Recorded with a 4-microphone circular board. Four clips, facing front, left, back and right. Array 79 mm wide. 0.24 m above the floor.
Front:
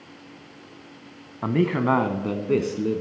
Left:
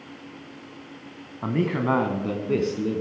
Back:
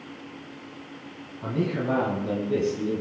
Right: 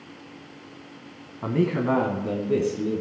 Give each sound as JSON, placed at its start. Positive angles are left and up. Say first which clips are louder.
{"t": 1.4, "sound": "a man speaking", "louder": "right 1 dB, front 5 dB", "azimuth_deg": 10, "distance_m": 1.8}